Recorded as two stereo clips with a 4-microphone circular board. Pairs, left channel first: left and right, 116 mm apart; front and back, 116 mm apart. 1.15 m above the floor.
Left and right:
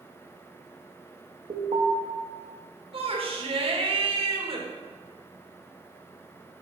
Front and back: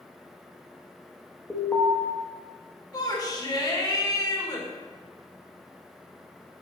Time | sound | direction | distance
1.5 | an alarm | 75° right | 1.0 m
2.9 | a shout | 55° right | 1.4 m